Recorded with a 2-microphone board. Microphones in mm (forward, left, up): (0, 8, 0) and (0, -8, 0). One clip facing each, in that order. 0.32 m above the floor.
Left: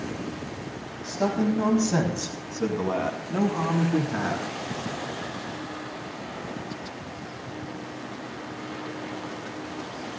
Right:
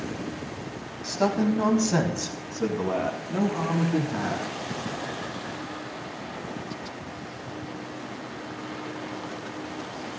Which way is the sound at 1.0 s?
45° right (ahead or behind).